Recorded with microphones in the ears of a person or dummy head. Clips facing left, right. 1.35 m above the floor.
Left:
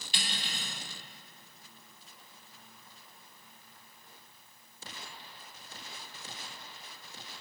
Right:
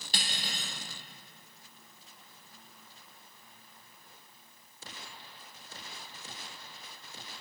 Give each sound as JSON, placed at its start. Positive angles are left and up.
{"t": 0.1, "sound": "cutlery clinking", "side_deg": -35, "distance_m": 0.8}